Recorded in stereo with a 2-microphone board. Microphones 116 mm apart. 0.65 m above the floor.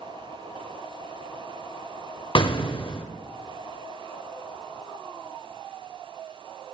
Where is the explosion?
45° left (ahead or behind), 0.8 m.